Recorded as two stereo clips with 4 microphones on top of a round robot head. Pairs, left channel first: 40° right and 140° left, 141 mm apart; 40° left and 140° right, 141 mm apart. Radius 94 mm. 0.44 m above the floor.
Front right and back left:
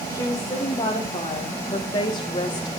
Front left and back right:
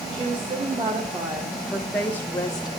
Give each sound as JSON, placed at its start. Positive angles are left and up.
{"t": 0.1, "sound": "a woman speaking", "azimuth_deg": -105, "distance_m": 2.0}